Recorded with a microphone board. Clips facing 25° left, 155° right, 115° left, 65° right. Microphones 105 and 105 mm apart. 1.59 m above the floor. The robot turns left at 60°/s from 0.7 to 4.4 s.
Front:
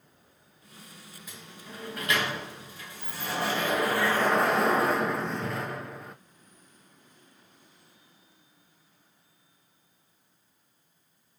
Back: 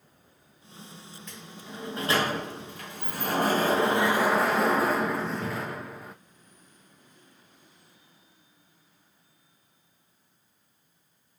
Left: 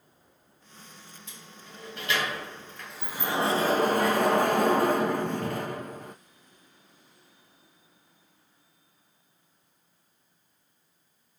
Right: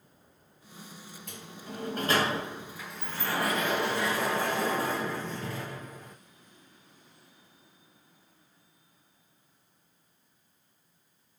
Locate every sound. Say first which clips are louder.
1.3 s a sliding door: back 2 dB, right 8 dB; 60° right, 1.1 m; by 6.2 s 115° left, 1.1 m